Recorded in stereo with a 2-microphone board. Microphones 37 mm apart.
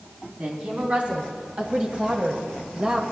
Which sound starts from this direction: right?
A woman speaking, at 0.4 s.